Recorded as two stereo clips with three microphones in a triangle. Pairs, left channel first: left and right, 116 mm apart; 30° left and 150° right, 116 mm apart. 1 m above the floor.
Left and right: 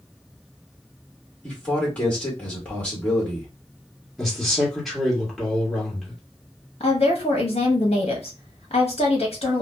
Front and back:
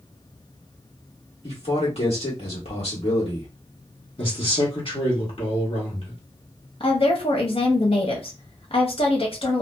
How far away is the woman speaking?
About 0.9 m.